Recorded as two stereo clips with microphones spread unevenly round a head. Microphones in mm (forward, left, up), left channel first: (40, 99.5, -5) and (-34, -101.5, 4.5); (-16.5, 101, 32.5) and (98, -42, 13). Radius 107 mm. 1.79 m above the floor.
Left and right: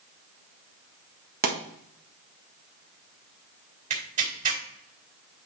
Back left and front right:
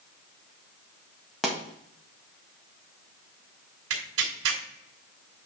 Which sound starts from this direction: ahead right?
Tearing paper, at 3.9 s.